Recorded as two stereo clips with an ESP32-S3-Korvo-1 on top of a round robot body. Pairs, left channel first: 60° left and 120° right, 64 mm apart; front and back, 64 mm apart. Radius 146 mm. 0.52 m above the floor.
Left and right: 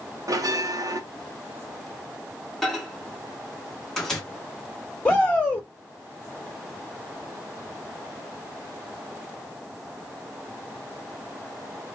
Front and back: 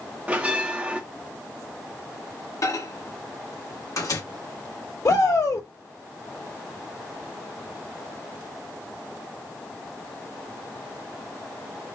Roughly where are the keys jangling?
I don't hear keys jangling.